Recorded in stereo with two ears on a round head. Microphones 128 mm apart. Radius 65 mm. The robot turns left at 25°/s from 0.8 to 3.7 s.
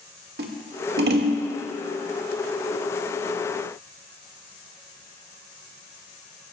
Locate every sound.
0.4 s scissors: 80° right, 1.6 m